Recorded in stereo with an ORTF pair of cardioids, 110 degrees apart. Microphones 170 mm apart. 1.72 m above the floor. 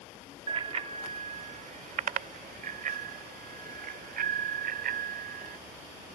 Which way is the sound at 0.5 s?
35° right.